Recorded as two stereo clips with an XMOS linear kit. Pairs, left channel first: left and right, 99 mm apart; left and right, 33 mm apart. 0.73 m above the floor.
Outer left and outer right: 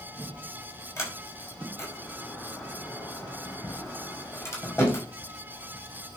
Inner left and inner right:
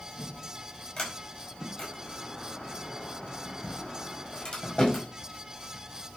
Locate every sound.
1.0 s a sliding door: 30° left (ahead or behind), 5 m